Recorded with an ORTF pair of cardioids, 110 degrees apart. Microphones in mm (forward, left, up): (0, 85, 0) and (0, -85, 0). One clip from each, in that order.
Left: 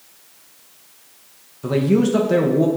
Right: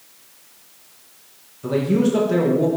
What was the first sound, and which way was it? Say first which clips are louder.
A man speaking: left 1 dB; 20° left.